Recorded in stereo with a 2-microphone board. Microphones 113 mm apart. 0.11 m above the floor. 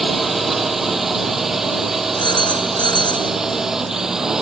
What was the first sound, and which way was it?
A drone, centre (ahead or behind).